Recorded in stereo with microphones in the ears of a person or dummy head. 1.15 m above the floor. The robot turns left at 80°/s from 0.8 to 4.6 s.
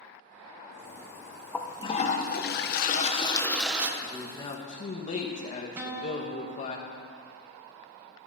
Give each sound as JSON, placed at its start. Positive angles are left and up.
{"t": 1.5, "sound": "a toilet flushing", "azimuth_deg": 170, "distance_m": 0.7}
{"t": 4.0, "sound": "a man speaking", "azimuth_deg": -175, "distance_m": 1.4}
{"t": 5.8, "sound": "a guitar", "side_deg": -15, "distance_m": 0.9}